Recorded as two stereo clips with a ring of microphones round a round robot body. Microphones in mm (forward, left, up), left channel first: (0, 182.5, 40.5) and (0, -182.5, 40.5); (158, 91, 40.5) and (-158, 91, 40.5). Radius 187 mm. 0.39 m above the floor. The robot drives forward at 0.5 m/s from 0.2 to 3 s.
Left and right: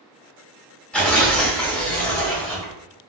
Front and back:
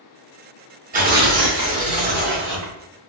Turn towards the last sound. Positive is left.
turn(degrees=180)